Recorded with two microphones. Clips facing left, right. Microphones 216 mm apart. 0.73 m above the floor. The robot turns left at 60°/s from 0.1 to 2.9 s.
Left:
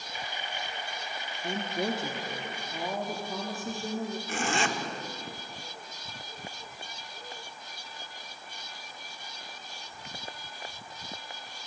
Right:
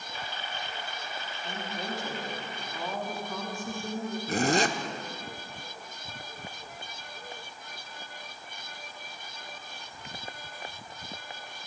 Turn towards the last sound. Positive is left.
turn(degrees=-40)  # may be behind; listen again after turning